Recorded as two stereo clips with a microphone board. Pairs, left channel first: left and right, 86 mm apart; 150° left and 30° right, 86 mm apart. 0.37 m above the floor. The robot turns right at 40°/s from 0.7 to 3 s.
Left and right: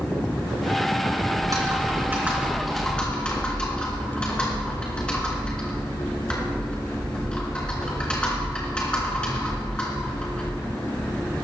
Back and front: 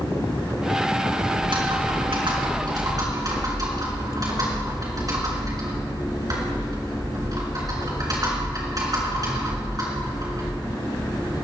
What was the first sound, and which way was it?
Typing on a keyboard, 55° right.